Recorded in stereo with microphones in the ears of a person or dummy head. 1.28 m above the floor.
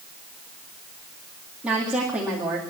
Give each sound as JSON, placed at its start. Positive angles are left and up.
{"t": 1.6, "sound": "a woman speaking", "side_deg": 0, "distance_m": 2.5}